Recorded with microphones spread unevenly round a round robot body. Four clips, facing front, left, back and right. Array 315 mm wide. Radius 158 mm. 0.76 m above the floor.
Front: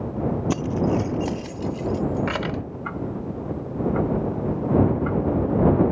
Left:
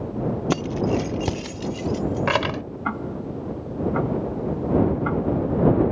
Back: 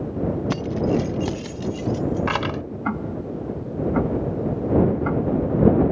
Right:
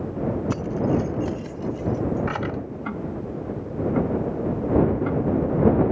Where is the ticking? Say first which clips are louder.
Left 4 dB, back 4 dB; 175° left.